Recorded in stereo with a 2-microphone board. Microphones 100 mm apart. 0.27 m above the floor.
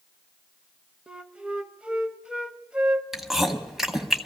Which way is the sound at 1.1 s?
10° right (ahead or behind).